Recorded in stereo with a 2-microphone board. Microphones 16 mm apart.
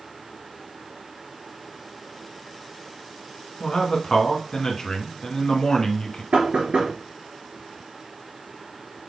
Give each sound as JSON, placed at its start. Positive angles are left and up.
{"t": 3.6, "sound": "a man speaking", "side_deg": 45, "distance_m": 1.6}
{"t": 6.3, "sound": "knocking", "side_deg": -60, "distance_m": 3.0}